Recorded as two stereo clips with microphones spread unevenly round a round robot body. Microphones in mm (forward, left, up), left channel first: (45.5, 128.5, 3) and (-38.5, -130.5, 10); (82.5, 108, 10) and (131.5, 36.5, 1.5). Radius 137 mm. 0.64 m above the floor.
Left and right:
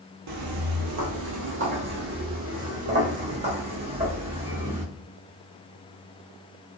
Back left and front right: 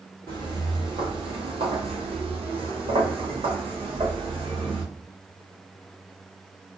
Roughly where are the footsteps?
Right.